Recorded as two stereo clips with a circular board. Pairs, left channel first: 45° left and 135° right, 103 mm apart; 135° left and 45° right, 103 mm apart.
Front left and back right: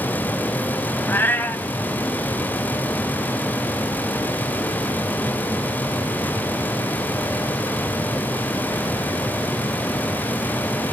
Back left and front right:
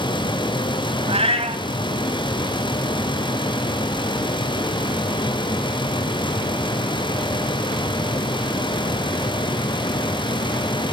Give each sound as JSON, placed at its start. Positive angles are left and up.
{"t": 1.1, "sound": "a cat meowing", "azimuth_deg": -25, "distance_m": 1.4}